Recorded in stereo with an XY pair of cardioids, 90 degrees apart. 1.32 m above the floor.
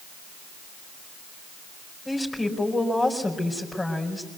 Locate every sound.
2.0 s a woman speaking: 25° left, 5 m